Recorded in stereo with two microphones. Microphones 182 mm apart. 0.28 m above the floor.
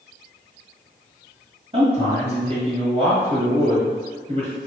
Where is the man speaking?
35° right (ahead or behind), 1.6 m.